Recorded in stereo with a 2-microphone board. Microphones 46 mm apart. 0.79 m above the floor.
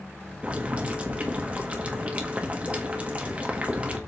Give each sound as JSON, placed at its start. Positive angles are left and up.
{"t": 0.4, "sound": "boiling", "side_deg": -25, "distance_m": 1.2}